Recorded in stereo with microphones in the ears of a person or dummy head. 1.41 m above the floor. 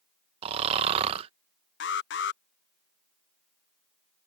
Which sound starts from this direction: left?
An alarm, at 1.8 s.